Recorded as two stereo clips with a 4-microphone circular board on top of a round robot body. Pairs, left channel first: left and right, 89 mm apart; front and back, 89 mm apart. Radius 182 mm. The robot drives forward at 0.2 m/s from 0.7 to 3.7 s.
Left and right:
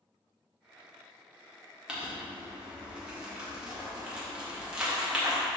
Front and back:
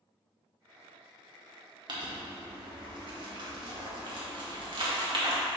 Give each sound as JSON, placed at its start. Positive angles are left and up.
{"t": 1.9, "sound": "crumpling", "azimuth_deg": -170, "distance_m": 2.0}